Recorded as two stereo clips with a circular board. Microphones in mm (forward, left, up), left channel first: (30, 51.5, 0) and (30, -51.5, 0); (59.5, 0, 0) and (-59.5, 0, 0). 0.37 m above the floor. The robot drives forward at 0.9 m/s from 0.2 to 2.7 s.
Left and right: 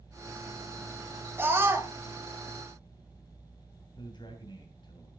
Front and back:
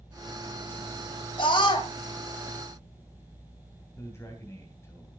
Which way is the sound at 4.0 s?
65° left.